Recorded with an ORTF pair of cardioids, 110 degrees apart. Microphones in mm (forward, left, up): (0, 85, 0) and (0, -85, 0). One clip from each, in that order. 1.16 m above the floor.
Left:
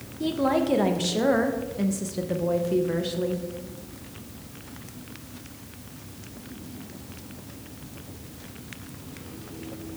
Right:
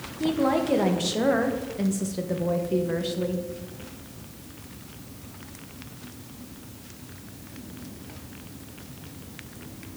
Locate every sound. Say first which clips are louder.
0.2 s a woman speaking: even; straight ahead, 0.9 m